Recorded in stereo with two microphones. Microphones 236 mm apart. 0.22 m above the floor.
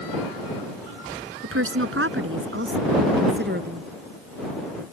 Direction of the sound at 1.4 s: 65° right (ahead or behind).